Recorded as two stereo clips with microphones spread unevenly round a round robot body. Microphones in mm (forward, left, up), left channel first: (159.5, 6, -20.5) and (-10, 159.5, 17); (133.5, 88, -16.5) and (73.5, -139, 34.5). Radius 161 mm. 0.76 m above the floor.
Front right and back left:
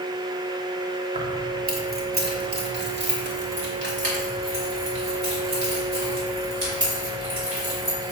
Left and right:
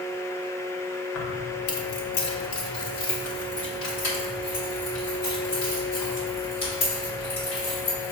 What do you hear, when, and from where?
1.1 s keys jangling: 75° left, 1.3 m; by 8.1 s 110° left, 5.5 m